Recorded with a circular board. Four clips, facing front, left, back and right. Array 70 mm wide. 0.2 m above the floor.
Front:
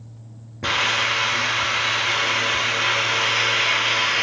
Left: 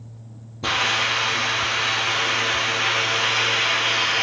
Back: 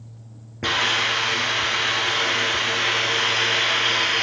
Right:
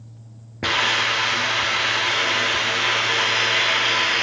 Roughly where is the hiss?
Right.